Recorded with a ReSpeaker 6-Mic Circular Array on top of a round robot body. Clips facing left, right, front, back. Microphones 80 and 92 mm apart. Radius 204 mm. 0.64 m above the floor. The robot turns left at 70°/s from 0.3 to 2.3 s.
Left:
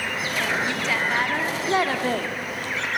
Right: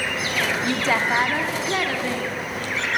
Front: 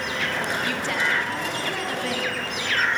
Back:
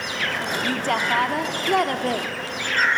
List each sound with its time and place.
0.6 s a woman speaking: 125° right, 1.8 m; by 2.3 s 120° left, 1.8 m